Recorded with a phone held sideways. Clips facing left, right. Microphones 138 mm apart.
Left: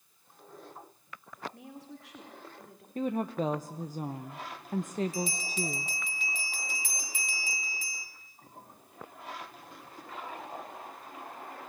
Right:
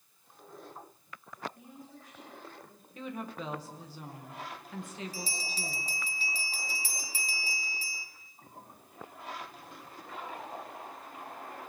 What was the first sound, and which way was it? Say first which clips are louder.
A woman speaking: left 3 dB; 85° left.